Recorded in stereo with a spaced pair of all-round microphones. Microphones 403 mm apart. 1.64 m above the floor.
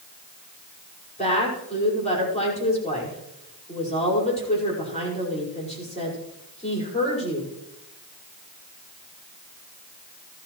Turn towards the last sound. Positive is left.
turn(degrees=15)  # may be behind; listen again after turning